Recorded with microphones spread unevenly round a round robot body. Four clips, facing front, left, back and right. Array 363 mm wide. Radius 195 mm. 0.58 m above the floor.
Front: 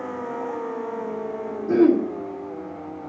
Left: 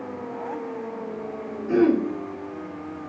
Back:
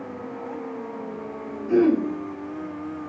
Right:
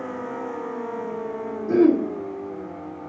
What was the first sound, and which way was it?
Throat clearing, 10° right.